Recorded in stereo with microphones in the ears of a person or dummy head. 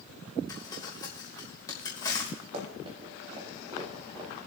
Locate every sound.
0.5 s crumpling: 20° left (ahead or behind), 1.5 m
2.5 s running footsteps: 40° right (ahead or behind), 3.5 m; by 4.5 s 30° right (ahead or behind), 4 m